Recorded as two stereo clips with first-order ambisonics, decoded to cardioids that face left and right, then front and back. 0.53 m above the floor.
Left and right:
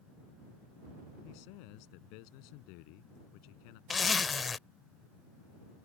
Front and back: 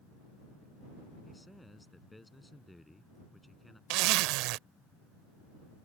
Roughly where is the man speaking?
Left.